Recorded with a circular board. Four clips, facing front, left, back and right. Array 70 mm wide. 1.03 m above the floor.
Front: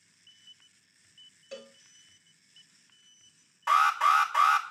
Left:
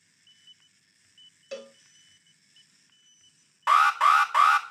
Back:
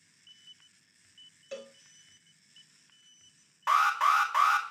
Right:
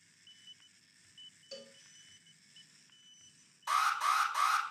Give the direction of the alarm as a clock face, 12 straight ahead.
9 o'clock.